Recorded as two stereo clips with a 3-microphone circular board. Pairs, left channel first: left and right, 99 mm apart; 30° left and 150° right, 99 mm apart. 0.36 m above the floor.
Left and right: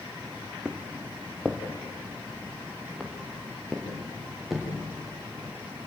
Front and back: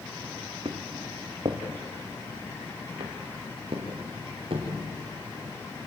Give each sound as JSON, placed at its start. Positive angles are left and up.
{"t": 0.7, "sound": "footsteps", "azimuth_deg": -175, "distance_m": 1.9}